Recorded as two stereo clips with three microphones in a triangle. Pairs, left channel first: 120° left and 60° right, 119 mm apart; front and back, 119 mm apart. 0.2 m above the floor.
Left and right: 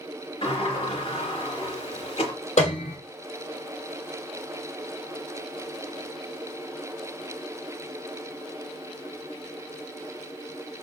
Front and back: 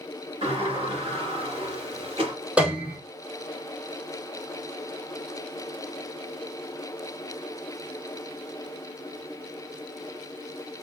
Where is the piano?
100° left, 1.3 m.